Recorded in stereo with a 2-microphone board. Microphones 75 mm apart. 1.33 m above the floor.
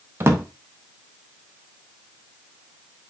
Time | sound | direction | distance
0.2 | a drawer | 35° right (ahead or behind) | 0.7 m